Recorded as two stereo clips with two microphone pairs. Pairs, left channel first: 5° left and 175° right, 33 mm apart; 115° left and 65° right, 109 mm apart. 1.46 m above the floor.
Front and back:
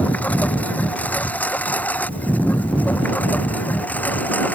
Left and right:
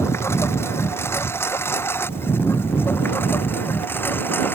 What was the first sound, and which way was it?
A lawn mower, 45° left.